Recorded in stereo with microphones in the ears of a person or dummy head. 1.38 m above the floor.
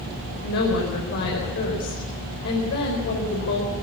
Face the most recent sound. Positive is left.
turn(degrees=65)  # may be behind; listen again after turning